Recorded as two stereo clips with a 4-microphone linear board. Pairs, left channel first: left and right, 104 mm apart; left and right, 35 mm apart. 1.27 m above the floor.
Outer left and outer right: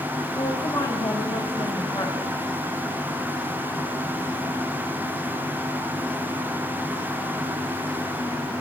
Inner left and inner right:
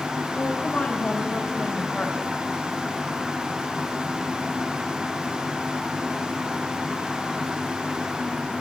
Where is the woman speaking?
35° left (ahead or behind), 3 m.